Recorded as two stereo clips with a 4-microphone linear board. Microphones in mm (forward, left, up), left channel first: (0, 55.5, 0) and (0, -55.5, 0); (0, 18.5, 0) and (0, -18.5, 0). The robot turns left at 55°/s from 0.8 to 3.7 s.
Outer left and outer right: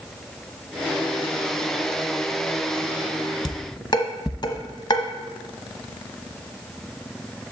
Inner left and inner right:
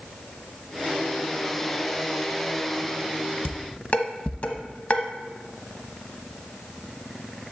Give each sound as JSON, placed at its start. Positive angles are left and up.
{"t": 3.5, "sound": "dishes clattering", "side_deg": 45, "distance_m": 0.9}